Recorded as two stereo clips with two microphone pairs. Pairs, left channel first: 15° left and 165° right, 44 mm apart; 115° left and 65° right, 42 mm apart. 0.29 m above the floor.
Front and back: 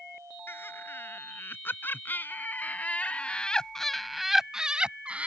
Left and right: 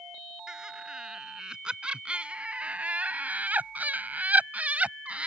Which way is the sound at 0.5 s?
10° left.